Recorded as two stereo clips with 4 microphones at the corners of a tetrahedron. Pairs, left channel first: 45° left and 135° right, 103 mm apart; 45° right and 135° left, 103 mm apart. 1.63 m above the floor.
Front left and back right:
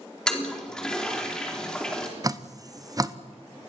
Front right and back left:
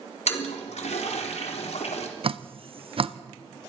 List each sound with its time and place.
0.3 s a toilet flushing: 40° right, 3.5 m
2.2 s dripping: 170° left, 0.9 m